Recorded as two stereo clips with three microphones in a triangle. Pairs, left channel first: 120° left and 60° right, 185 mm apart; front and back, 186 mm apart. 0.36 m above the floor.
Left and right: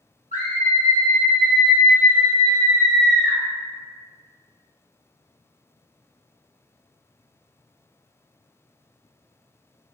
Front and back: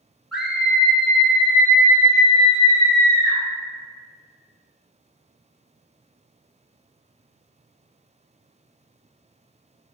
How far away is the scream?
About 1.2 m.